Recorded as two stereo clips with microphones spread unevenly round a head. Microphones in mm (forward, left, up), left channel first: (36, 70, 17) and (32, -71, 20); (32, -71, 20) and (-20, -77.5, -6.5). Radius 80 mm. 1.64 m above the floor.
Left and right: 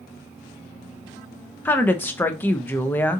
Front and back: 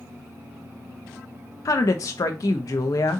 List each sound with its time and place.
1.6 s a woman speaking: 10° left, 0.5 m